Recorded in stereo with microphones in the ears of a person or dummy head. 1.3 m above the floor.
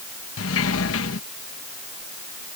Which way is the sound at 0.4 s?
75° left (ahead or behind).